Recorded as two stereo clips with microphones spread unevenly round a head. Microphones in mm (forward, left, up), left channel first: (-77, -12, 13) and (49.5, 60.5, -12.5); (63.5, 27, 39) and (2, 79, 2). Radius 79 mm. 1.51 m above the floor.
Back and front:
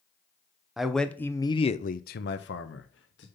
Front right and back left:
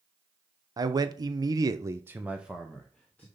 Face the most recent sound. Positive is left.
turn(degrees=-125)